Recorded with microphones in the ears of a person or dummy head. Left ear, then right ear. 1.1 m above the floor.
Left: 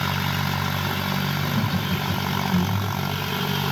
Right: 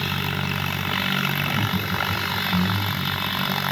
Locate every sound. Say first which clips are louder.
1.4 s laughter: right 2 dB; 35° left (ahead or behind), 6 m; by 3.2 s 20° left (ahead or behind), 4.5 m